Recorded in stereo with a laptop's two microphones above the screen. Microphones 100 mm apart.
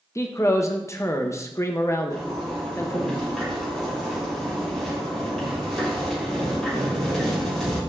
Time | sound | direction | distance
0.1 | a man speaking | 30° left (ahead or behind) | 0.5 m
2.1 | a zipper | centre (ahead or behind) | 2.5 m